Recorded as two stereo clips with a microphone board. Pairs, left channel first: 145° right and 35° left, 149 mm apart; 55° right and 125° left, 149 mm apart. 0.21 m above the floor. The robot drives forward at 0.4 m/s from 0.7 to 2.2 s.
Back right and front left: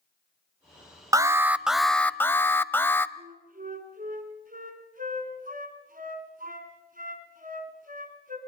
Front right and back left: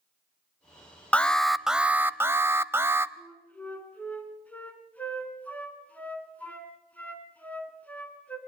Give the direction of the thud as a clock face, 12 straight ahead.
No thud in this recording.